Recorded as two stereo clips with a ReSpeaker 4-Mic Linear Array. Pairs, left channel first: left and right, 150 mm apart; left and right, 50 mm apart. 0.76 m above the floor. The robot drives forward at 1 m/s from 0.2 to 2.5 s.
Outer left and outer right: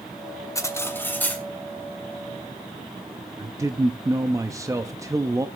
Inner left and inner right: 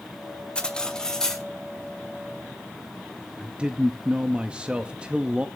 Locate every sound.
0.6 s cutlery clinking: 20° left (ahead or behind), 0.9 m; by 1.4 s 10° left (ahead or behind), 1.8 m
3.4 s a man speaking: 20° right (ahead or behind), 0.6 m